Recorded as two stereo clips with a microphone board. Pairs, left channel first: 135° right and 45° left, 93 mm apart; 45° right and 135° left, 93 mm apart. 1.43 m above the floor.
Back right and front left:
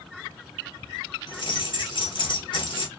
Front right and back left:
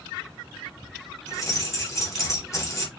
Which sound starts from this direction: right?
Keys jangling, at 1.3 s.